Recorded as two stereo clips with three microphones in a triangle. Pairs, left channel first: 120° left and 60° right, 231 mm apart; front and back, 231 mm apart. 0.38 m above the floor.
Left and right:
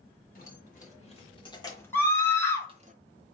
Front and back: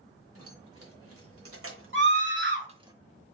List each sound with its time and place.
0.3 s keys jangling: 170° left, 1.6 m; by 2.9 s 110° right, 0.8 m
1.9 s a scream: 160° right, 1.5 m